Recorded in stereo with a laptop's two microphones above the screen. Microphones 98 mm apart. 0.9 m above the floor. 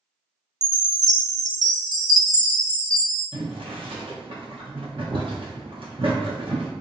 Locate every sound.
0.6 s a chime: 40° right (ahead or behind), 0.5 m
3.3 s boiling: 60° right (ahead or behind), 0.8 m